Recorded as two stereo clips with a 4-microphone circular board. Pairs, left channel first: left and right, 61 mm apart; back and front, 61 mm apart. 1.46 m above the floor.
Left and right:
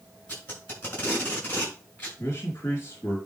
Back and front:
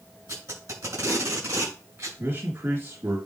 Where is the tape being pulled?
25° left, 7.5 m.